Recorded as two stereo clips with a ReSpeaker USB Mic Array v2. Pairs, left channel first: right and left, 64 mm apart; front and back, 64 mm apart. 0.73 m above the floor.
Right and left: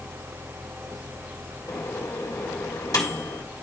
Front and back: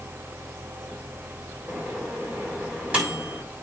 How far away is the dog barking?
I don't hear a dog barking.